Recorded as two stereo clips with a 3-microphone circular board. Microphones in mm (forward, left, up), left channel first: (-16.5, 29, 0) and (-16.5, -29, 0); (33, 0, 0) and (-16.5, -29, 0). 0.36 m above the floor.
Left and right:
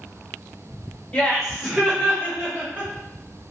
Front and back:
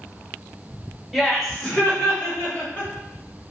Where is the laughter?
125° left, 1.1 m; by 2.9 s 30° right, 2.5 m.